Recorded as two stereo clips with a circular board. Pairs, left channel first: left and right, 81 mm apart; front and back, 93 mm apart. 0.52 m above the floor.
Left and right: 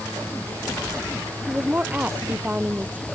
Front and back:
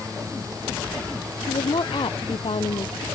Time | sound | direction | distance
1.5 | a woman speaking | 20° right | ?